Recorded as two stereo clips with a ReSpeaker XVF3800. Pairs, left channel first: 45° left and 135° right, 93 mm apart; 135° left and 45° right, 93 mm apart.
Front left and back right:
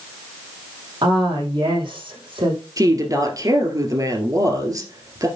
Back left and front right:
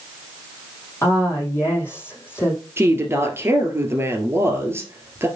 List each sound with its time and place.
1.0 s a woman speaking: 165° right, 5 m
2.8 s a woman speaking: 100° right, 2.5 m